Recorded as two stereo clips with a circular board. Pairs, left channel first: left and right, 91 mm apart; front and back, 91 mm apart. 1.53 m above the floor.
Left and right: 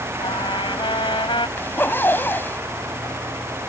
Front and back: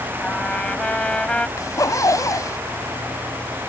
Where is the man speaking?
I don't hear a man speaking.